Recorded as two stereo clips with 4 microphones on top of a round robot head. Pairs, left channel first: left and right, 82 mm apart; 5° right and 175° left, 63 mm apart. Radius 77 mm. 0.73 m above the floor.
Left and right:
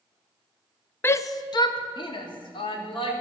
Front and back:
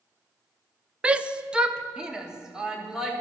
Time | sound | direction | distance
1.0 | a shout | 125° left | 0.5 m